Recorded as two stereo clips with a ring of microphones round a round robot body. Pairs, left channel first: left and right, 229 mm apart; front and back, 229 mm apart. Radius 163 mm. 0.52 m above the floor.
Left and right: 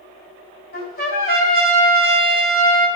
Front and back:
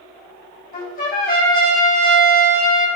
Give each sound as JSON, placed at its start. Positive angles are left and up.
{"t": 0.7, "sound": "a trumpet", "azimuth_deg": 45, "distance_m": 2.5}